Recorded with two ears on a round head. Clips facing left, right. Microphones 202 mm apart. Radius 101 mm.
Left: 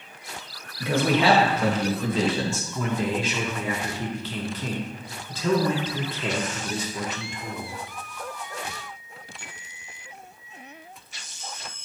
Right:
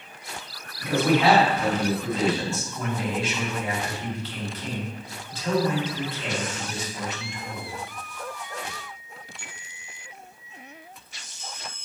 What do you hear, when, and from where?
0.8 s a man speaking: 60° left (ahead or behind), 1.7 m
2.8 s a man speaking: 70° left (ahead or behind), 1.7 m